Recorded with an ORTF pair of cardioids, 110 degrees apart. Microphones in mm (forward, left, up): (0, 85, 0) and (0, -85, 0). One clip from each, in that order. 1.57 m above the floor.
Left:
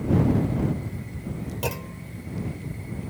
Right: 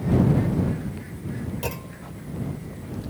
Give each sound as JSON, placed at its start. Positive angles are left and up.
{"t": 1.6, "sound": "a clunk", "azimuth_deg": 15}